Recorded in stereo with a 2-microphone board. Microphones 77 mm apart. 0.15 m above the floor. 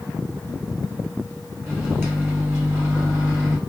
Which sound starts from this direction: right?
A microwave, at 1.7 s.